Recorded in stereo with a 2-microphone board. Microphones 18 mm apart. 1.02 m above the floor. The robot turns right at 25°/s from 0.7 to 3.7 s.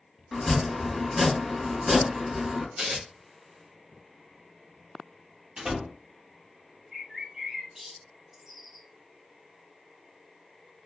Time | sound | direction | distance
0.3 | chopping | 170° left | 1.6 m
2.8 | tearing paper | 50° right (ahead or behind) | 1.1 m
5.6 | a door slam | 50° right (ahead or behind) | 1.2 m
6.9 | a bird | 25° right (ahead or behind) | 1.1 m